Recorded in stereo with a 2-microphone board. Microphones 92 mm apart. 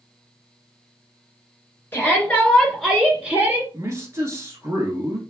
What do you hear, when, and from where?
1.9 s a shout: 20° left (ahead or behind), 1.7 m; by 3.6 s 20° right (ahead or behind), 1.8 m
3.7 s a man speaking: 35° right (ahead or behind), 1.3 m